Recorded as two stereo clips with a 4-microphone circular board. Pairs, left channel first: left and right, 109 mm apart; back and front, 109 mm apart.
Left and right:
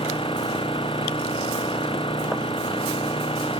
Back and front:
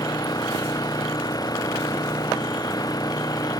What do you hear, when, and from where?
0.0 s an engine running: 125° left